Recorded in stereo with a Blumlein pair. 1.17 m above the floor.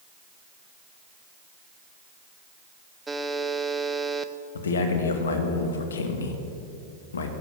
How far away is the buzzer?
About 0.8 m.